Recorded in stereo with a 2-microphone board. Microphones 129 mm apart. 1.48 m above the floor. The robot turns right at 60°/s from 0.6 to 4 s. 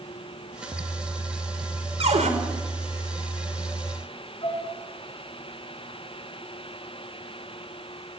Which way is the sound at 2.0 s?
55° right (ahead or behind).